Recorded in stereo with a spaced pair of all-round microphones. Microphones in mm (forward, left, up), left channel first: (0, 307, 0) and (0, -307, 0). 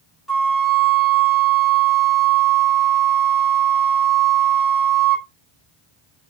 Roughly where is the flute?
Centre.